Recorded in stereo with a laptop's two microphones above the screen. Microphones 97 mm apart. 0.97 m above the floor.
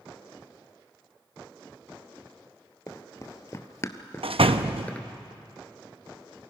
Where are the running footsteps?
35° left (ahead or behind), 1.5 m; by 5.1 s 10° left (ahead or behind), 1.0 m.